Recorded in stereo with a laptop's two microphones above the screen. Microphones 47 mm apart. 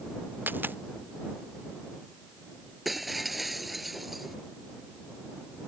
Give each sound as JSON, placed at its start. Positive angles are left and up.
{"t": 0.5, "sound": "a dropped coin", "side_deg": -50}
{"t": 2.9, "sound": "breaking glass", "side_deg": 0}